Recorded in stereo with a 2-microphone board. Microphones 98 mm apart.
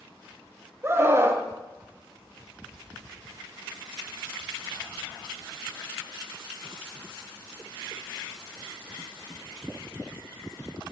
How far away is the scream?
About 0.6 m.